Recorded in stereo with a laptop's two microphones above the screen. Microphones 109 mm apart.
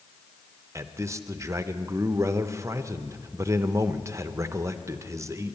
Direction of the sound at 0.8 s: 25° right (ahead or behind).